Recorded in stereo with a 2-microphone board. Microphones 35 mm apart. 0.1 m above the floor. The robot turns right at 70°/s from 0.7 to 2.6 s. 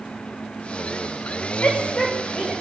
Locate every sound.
1.6 s a shout: 65° left (ahead or behind), 6.5 m; by 2.6 s 5° right (ahead or behind), 6.5 m